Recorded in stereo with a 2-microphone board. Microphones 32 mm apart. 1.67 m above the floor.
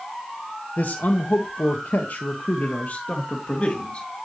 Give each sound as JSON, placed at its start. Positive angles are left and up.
{"t": 0.8, "sound": "a man speaking", "side_deg": 60, "distance_m": 1.5}